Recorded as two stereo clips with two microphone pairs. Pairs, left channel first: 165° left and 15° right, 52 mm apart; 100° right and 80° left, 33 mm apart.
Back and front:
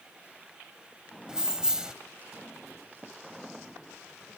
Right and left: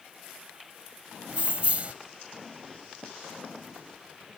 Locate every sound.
1.3 s keys jangling: 60° left, 0.8 m